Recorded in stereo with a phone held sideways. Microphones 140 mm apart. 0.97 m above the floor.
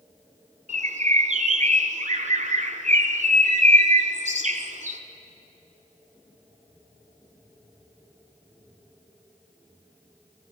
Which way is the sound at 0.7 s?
60° right (ahead or behind).